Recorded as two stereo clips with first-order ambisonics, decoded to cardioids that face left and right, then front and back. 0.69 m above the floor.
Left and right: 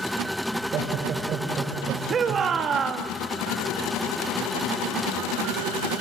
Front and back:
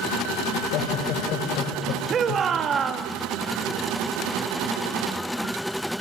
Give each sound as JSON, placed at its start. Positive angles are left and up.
{"t": 0.5, "sound": "laughter", "azimuth_deg": -35, "distance_m": 3.5}
{"t": 2.1, "sound": "a shout", "azimuth_deg": -135, "distance_m": 0.9}